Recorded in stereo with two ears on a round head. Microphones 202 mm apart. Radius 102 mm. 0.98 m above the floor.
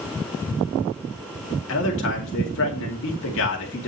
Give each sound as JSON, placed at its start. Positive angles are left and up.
{"t": 1.7, "sound": "a man speaking", "side_deg": 60, "distance_m": 2.5}